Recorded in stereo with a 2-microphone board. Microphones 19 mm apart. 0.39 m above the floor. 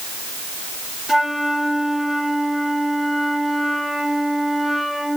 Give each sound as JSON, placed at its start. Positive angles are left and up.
{"t": 1.1, "sound": "a flute", "side_deg": -15, "distance_m": 4.5}